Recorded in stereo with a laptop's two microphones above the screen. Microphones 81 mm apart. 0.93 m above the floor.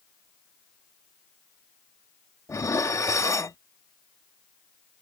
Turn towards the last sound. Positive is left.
turn(degrees=40)  # may be behind; listen again after turning